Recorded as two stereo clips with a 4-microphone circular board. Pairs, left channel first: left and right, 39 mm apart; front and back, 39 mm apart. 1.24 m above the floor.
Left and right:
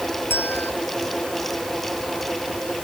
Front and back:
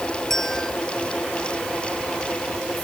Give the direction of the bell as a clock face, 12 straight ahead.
9 o'clock.